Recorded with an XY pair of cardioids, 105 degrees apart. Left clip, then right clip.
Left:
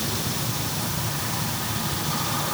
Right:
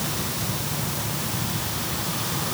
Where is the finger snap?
I don't hear a finger snap.